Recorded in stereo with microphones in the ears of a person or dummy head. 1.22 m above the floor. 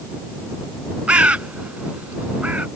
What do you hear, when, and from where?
1.1 s a bird: 5° right (ahead or behind)